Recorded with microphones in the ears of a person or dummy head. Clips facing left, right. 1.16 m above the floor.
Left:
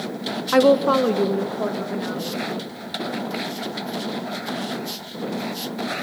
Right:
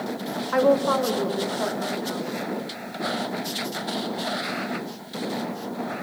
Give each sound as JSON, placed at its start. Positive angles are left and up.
{"t": 0.5, "sound": "a woman speaking", "side_deg": 55, "distance_m": 0.9}